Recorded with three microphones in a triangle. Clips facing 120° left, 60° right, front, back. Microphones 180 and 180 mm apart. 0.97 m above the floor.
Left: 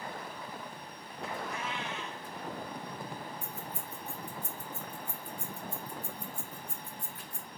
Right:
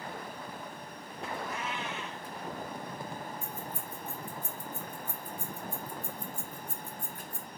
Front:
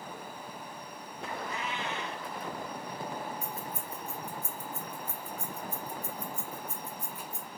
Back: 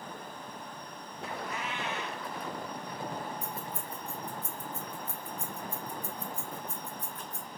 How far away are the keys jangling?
About 0.6 m.